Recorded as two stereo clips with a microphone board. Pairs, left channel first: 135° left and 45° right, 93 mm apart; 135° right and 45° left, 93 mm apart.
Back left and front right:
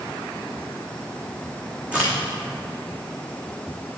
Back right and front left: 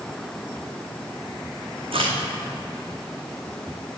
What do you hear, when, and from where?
1.9 s a crack: 30° left, 3.5 m